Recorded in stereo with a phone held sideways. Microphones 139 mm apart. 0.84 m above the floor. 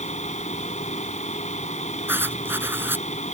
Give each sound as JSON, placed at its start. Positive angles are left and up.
{"t": 0.0, "sound": "a fan", "side_deg": 60}
{"t": 2.1, "sound": "writing", "side_deg": -15}